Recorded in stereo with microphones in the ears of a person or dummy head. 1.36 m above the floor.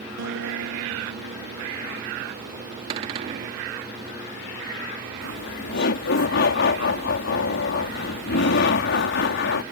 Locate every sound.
0.2 s a guitar: 80° right
2.9 s a cupboard door: 35° right (ahead or behind)
5.2 s laughter: 60° left (ahead or behind)